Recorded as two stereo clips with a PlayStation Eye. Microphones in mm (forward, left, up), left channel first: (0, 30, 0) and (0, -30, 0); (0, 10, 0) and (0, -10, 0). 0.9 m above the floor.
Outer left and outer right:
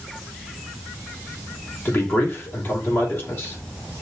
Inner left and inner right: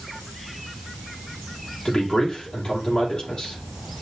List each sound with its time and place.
1.9 s a man speaking: 40° left (ahead or behind), 3 m